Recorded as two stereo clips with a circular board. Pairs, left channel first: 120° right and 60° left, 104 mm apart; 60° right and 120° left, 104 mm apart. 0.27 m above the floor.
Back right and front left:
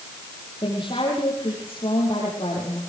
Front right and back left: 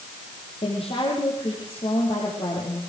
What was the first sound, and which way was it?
A woman speaking, 80° right.